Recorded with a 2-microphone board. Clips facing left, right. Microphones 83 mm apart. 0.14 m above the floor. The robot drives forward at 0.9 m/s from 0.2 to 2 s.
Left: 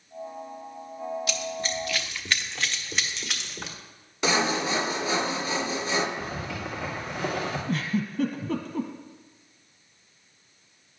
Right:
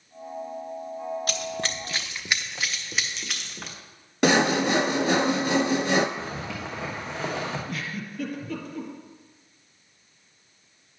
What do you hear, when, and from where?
1.3 s running footsteps: 45° right (ahead or behind), 0.8 m; by 3.8 s centre (ahead or behind), 2.5 m
4.2 s sawing: 65° right (ahead or behind), 0.5 m
6.2 s a zipper: 25° right (ahead or behind), 2.5 m
7.7 s a giggle: 40° left (ahead or behind), 1.2 m